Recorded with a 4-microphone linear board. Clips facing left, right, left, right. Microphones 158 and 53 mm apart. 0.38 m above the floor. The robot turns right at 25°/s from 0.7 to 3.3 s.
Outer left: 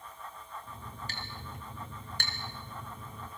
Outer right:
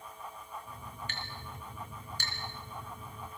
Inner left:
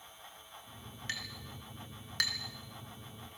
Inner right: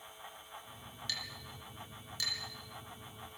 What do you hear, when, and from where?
1.1 s a clink: 35° left (ahead or behind), 3.5 m; by 2.3 s 65° left (ahead or behind), 3.5 m